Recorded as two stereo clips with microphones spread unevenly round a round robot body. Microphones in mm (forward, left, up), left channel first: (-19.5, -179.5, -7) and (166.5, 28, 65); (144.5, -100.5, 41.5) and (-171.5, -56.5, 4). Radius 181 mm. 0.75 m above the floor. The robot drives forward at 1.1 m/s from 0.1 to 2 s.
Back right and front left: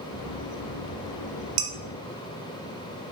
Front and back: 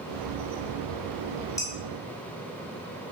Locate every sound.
1.6 s dishes clattering: 75° left, 0.8 m; by 1.7 s 85° left, 0.8 m